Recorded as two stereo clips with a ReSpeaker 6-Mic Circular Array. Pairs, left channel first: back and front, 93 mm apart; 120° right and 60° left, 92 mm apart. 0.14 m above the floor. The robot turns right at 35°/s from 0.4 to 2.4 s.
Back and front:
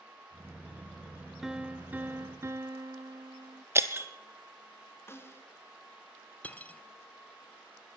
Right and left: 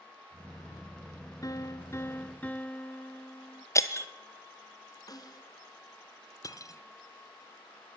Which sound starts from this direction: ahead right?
Breaking glass, at 3.8 s.